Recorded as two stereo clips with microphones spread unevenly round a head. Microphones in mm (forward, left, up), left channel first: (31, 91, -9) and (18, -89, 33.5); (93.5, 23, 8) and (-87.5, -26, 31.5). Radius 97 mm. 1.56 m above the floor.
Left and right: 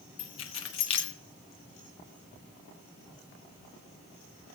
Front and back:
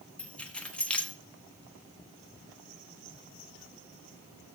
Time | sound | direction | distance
0.2 | keys jangling | 105° left | 1.0 m